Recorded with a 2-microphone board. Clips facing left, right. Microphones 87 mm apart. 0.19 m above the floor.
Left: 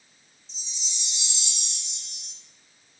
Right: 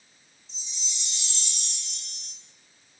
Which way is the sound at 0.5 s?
20° left (ahead or behind).